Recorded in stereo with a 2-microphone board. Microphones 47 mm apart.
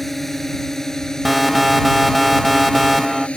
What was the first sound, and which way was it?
A drone, 5° left (ahead or behind).